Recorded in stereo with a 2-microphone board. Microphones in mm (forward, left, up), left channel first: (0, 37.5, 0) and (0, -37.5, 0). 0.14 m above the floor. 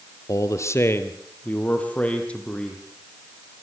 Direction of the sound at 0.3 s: 50° left (ahead or behind).